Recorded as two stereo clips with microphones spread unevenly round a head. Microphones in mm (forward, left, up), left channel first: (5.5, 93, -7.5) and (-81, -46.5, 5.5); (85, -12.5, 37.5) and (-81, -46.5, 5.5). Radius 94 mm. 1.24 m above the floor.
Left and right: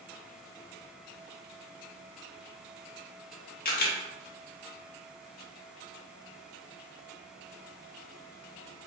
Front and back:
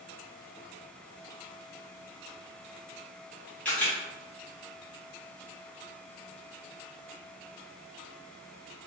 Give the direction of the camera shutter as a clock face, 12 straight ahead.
9 o'clock.